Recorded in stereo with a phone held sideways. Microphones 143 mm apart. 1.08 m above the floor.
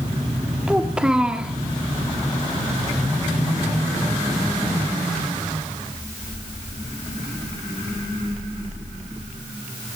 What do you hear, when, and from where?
0.7 s a child speaking: 5° right (ahead or behind), 1.1 m